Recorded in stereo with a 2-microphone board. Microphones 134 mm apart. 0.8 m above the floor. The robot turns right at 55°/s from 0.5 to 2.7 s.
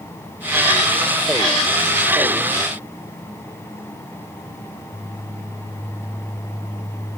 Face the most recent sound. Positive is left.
No sound to turn to.